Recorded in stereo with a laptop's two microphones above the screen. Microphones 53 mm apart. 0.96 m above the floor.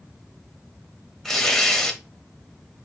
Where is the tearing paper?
5° left (ahead or behind), 1.8 m.